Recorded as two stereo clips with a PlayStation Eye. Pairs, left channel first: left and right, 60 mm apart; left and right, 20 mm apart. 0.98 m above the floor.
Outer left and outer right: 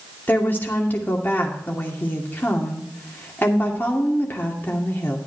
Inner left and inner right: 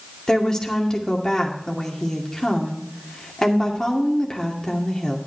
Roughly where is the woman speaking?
Left.